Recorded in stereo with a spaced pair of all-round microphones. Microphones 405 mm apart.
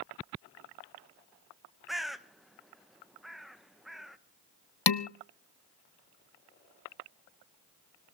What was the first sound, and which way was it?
A bird, centre (ahead or behind).